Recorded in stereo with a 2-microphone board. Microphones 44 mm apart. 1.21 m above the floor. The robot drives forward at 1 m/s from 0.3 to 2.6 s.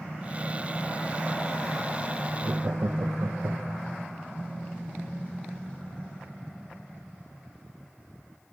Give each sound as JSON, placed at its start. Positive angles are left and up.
{"t": 2.4, "sound": "laughter", "side_deg": -60, "distance_m": 0.7}